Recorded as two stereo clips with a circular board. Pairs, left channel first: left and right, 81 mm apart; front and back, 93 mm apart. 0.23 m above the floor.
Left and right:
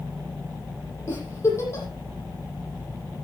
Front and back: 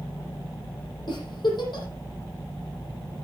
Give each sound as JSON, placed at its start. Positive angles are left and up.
{"t": 1.1, "sound": "a giggle", "azimuth_deg": 35, "distance_m": 7.0}